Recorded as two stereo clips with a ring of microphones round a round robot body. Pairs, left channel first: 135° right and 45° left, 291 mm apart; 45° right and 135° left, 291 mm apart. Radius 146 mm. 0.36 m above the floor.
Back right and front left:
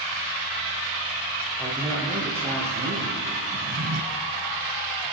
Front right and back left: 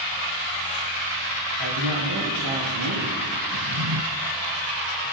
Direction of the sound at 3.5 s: 105° left.